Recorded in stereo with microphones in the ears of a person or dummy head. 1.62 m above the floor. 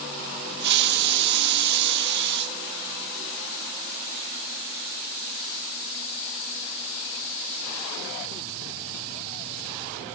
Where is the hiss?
60° right (ahead or behind), 1.8 m.